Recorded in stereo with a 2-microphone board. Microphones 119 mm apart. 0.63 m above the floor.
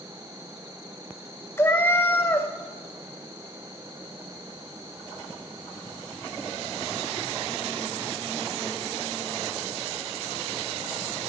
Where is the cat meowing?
20° left (ahead or behind), 0.6 m.